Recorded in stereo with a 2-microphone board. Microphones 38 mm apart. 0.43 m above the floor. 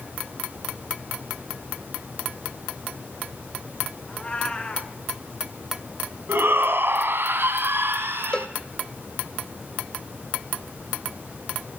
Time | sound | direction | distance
4.1 | a cat meowing | 25° left (ahead or behind) | 2.5 m
6.3 | a shout | 75° right (ahead or behind) | 2.5 m
8.3 | a cowbell | 30° left (ahead or behind) | 0.7 m